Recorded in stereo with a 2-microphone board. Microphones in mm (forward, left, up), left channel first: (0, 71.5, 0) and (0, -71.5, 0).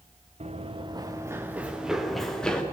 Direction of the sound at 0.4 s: 50° right (ahead or behind).